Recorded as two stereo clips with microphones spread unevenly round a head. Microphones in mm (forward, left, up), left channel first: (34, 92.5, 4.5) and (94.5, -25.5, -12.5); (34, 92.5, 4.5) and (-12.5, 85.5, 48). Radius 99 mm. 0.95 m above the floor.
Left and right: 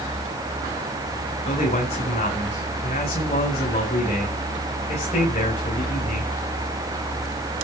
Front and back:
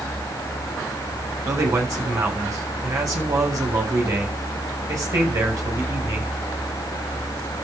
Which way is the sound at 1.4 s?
Straight behind.